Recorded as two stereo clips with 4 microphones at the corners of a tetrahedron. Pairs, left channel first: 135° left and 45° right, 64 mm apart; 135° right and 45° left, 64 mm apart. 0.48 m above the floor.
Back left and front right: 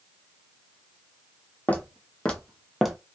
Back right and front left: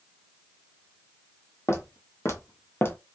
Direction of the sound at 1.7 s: 165° right.